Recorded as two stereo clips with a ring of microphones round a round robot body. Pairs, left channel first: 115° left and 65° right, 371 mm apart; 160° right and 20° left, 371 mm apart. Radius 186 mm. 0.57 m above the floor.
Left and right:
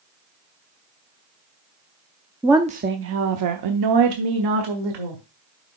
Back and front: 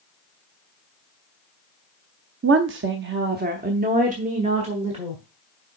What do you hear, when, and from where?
2.4 s a woman speaking: 15° left, 0.6 m; by 5.2 s 55° right, 1.8 m